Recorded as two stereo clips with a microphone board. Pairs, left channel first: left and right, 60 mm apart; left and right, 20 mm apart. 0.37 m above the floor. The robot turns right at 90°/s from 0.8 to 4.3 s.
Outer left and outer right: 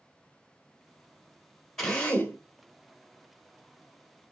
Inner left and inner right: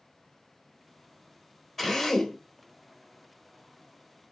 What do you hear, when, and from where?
1.8 s a drill: 10° left, 1.7 m; by 2.4 s 65° left, 1.7 m